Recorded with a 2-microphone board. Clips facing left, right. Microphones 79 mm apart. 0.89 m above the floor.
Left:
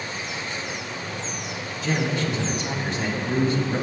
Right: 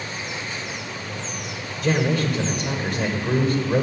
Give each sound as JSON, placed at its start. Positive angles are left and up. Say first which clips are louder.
{"t": 1.8, "sound": "a man speaking", "louder": "right 4 dB", "side_deg": -50, "distance_m": 3.0}